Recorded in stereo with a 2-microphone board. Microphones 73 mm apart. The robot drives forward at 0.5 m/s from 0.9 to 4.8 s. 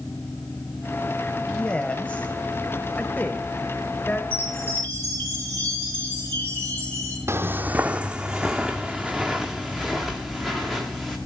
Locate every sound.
1.5 s a woman speaking: 15° left (ahead or behind), 1.7 m; by 4.2 s 20° left (ahead or behind), 1.4 m
4.3 s a chime: 25° left (ahead or behind), 7 m
7.3 s footsteps: 40° right (ahead or behind), 0.6 m; by 11.2 s 5° left (ahead or behind), 3.5 m